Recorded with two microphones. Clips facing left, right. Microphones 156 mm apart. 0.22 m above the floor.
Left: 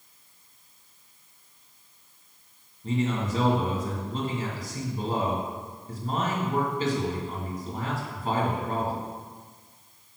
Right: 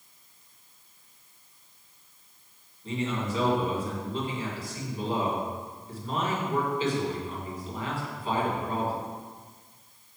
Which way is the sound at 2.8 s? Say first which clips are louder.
Left 3 dB; 40° left (ahead or behind).